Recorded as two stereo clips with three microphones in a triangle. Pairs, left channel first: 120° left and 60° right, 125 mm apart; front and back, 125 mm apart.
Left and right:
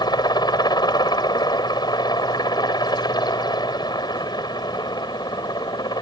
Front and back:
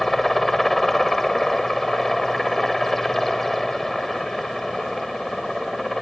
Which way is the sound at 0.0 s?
90° left.